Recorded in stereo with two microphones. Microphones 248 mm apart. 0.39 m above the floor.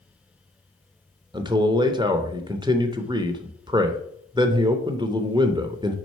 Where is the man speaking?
15° right (ahead or behind), 0.8 m.